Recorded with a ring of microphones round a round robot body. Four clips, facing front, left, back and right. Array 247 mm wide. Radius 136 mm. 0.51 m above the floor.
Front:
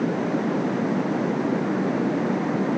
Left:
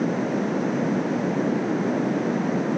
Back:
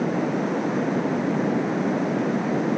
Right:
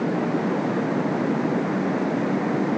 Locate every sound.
Only background noise.